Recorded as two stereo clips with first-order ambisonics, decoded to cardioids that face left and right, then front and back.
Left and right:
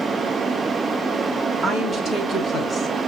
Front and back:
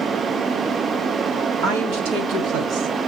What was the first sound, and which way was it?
A woman speaking, 160° left.